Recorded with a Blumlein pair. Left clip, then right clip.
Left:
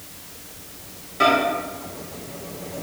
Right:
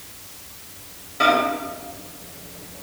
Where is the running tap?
No running tap in this recording.